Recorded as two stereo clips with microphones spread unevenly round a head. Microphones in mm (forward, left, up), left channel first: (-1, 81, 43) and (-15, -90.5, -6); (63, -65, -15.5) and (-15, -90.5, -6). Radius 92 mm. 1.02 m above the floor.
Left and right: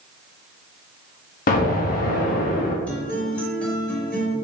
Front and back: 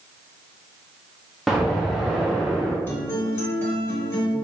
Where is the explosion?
95° left, 0.6 m.